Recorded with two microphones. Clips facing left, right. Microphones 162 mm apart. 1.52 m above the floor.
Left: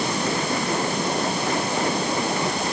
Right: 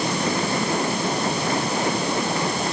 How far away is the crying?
I don't hear crying.